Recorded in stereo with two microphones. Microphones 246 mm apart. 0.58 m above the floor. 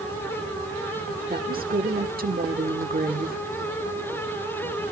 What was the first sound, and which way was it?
A woman speaking, 35° right (ahead or behind).